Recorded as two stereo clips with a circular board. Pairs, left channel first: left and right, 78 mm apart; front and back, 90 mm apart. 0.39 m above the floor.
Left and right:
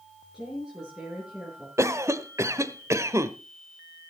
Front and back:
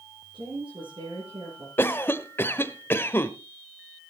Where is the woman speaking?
175° right, 6.5 m.